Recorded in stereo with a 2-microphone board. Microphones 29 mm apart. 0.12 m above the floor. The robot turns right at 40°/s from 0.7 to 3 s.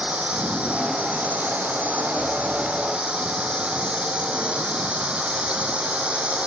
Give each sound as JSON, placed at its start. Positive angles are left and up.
{"t": 0.0, "sound": "a drone", "azimuth_deg": -130}